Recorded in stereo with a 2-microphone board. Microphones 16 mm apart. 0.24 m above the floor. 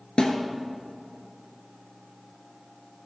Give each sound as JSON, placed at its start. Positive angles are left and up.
{"t": 0.2, "sound": "a snare drum", "side_deg": 75, "distance_m": 2.5}